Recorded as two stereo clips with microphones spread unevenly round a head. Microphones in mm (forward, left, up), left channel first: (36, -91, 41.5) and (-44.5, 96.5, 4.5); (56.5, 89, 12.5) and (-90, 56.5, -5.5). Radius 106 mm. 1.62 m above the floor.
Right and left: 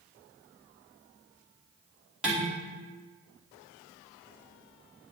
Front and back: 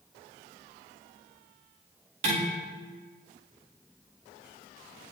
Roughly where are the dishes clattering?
Behind.